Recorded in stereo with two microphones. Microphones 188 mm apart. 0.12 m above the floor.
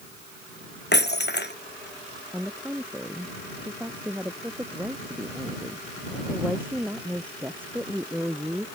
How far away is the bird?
I don't hear a bird.